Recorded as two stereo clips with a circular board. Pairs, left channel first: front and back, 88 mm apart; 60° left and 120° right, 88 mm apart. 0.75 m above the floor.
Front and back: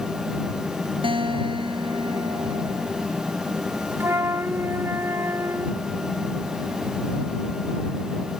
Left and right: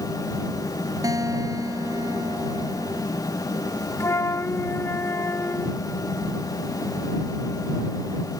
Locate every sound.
1.0 s a guitar: 170° right
4.0 s a flute: 120° left